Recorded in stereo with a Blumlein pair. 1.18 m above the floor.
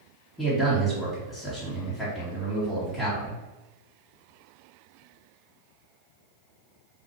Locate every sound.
0.4 s a man speaking: 10° left, 1.9 m